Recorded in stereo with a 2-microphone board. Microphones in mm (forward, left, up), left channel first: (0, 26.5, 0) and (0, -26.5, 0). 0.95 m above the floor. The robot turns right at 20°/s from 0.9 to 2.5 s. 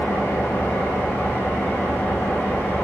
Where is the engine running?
90° left, 1.9 m; by 2.8 s 120° left, 1.9 m.